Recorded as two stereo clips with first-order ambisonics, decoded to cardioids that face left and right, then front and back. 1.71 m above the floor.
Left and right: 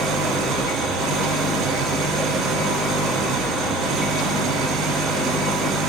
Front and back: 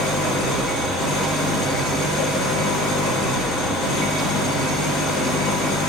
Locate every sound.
0.0 s an engine running: 40° right, 5.5 m